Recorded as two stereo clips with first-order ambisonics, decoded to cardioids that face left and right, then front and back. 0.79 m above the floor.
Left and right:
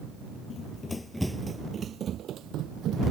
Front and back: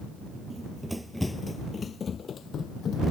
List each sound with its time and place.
0.5 s running footsteps: 115° left; by 3.0 s 55° right